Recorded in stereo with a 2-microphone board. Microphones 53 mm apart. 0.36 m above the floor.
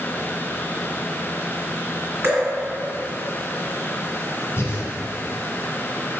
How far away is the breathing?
About 1.6 m.